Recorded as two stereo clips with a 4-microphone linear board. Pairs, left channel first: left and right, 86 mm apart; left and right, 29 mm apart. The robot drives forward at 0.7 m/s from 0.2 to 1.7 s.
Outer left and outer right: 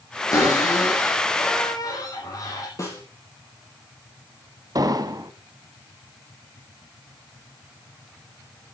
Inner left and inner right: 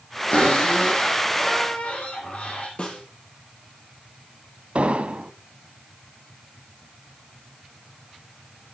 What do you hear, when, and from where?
0.3 s a cupboard door: 40° left (ahead or behind), 6 m; by 2.7 s 45° left (ahead or behind), 5.5 m
2.8 s a snare drum: 40° left (ahead or behind), 4 m
4.8 s an explosion: 50° right (ahead or behind), 0.8 m